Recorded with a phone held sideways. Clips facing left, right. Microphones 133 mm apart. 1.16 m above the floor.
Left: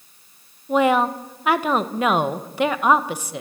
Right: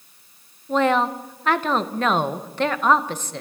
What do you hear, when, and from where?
0.7 s a woman speaking: 10° left (ahead or behind), 1.0 m